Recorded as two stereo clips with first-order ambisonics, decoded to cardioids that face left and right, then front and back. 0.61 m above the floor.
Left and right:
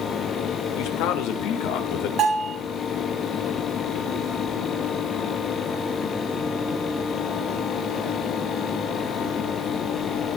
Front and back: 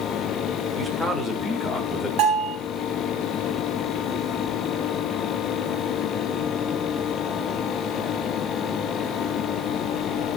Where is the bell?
145° right, 4 m.